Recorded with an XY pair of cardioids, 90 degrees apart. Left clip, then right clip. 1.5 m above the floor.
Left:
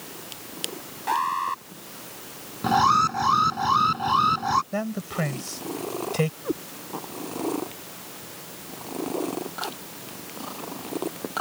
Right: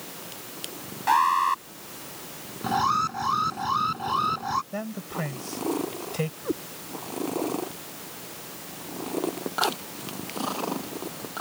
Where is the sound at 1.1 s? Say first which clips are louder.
Right 4 dB; 30° right.